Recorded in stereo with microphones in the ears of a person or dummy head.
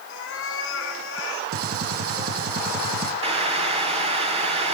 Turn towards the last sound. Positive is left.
turn(degrees=-30)  # may be behind; listen again after turning